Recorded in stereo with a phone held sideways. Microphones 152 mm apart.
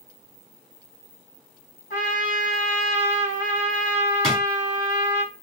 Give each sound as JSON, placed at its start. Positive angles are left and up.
{"t": 1.9, "sound": "a trumpet", "side_deg": 65, "distance_m": 1.7}
{"t": 4.2, "sound": "a drawer", "side_deg": 5, "distance_m": 1.3}